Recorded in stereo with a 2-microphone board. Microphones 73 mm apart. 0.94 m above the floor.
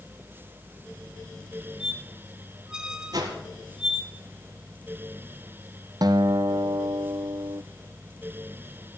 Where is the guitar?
65° right (ahead or behind), 0.5 m.